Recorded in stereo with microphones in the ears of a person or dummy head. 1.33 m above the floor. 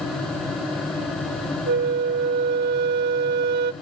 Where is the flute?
60° right (ahead or behind), 0.6 m.